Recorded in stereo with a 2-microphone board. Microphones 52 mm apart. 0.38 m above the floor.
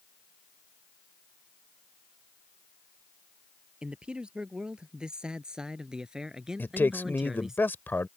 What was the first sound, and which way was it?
A man speaking, 20° right (ahead or behind).